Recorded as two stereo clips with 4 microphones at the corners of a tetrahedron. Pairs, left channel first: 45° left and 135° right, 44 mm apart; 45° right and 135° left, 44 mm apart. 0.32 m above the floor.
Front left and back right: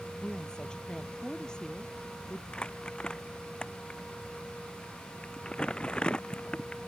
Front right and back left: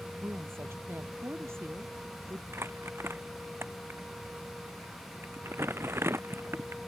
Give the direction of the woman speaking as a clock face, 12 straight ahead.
8 o'clock.